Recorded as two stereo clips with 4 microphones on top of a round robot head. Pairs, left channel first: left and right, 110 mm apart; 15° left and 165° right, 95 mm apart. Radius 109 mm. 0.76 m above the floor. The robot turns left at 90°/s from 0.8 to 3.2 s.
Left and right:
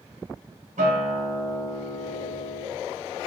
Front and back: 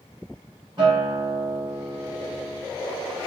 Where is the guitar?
115° right, 1.6 m; by 2.7 s 80° left, 1.6 m.